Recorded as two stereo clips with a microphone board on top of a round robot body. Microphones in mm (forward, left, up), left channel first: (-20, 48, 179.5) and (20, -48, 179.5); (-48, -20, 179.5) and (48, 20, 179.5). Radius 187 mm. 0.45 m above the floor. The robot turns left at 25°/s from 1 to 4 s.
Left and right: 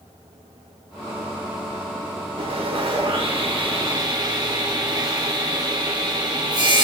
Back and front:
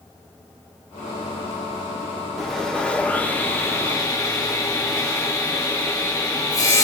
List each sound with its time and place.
2.4 s sawing: 65° right, 2 m; by 6.8 s 105° right, 2 m